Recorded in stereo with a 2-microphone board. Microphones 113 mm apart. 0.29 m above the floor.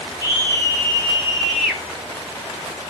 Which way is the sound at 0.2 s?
35° left (ahead or behind).